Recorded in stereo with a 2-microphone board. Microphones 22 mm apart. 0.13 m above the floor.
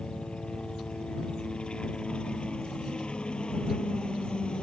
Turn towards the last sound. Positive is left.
turn(degrees=45)  # may be behind; listen again after turning